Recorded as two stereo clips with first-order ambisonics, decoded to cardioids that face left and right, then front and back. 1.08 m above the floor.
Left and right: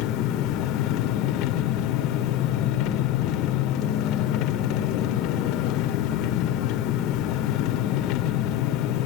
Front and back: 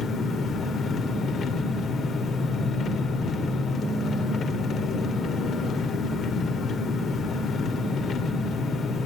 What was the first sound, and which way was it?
An engine running, 60° left.